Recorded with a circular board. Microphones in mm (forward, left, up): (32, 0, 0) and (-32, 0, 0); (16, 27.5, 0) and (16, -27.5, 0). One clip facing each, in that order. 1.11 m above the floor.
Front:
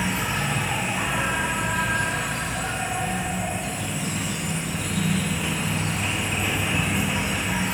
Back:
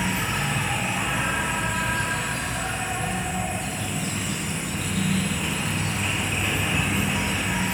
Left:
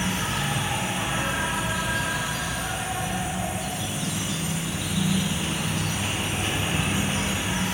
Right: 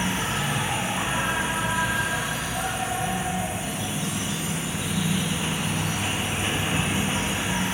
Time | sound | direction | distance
0.0 | an insect | 85° right | 0.8 m